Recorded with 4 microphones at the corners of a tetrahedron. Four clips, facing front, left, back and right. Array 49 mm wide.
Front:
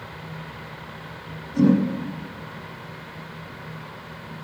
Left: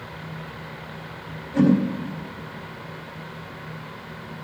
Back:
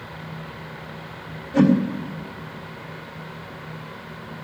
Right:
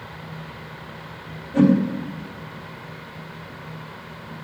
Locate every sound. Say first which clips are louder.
1.5 s a whoosh: right 2 dB, back 1 dB; 165° right, 4 m